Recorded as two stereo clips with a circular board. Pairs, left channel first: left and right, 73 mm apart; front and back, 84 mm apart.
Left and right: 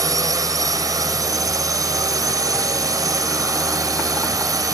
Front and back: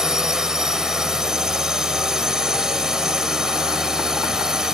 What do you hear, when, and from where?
0.0 s a drone: 100° right